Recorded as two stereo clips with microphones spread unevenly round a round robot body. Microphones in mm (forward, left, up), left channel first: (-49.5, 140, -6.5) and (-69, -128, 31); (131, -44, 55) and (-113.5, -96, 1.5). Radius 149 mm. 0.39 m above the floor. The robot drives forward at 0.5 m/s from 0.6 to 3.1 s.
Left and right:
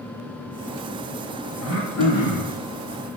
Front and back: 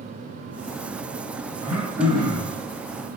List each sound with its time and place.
1.6 s throat clearing: 110° left, 10 m